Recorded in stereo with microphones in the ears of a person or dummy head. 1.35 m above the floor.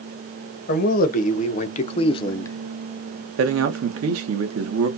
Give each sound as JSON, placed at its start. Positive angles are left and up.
{"t": 0.7, "sound": "a man speaking", "side_deg": 55, "distance_m": 1.3}
{"t": 3.4, "sound": "a man speaking", "side_deg": -70, "distance_m": 1.1}